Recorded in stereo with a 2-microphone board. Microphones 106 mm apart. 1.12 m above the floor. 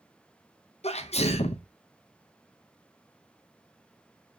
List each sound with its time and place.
0.8 s a sneeze: 80° left, 0.7 m